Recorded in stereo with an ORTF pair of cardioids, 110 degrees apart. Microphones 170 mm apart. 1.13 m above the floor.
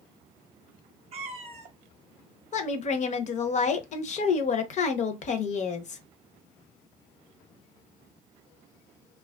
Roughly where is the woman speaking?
Ahead left.